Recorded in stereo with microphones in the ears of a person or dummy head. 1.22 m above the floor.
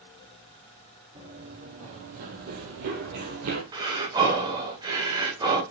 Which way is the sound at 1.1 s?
40° right (ahead or behind).